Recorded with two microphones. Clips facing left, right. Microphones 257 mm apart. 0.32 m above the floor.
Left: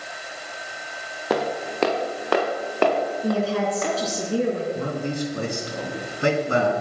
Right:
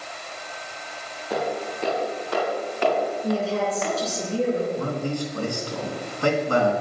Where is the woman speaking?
70° left (ahead or behind), 4.5 m.